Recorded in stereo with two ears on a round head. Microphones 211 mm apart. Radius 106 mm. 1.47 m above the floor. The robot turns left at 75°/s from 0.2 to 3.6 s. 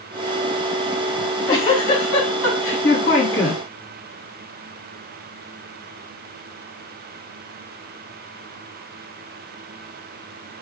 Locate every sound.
1.2 s a giggle: 175° right, 3 m; by 3.6 s straight ahead, 3 m